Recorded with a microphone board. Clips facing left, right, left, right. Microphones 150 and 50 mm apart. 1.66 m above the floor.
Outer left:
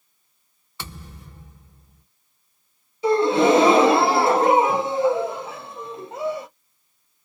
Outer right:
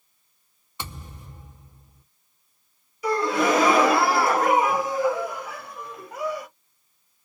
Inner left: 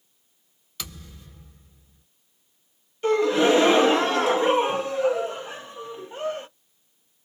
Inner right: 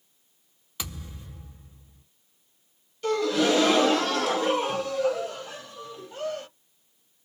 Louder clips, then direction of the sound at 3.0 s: Outer left 6 dB, inner left 4 dB; 25° left (ahead or behind).